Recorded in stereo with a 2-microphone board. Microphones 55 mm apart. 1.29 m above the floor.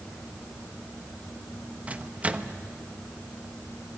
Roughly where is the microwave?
Right.